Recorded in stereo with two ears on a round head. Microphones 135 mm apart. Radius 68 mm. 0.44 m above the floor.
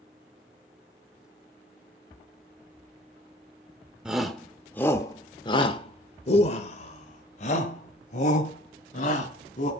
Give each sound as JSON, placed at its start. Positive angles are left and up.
{"t": 4.0, "sound": "a shout", "side_deg": -5, "distance_m": 1.7}